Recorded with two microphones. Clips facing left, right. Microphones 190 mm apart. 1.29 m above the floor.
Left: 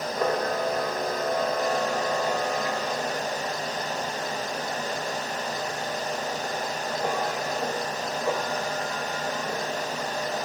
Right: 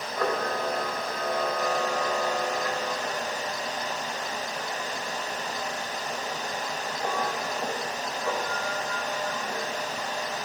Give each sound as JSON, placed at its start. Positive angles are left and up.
{"t": 0.2, "sound": "a camera shutter", "side_deg": 20, "distance_m": 2.5}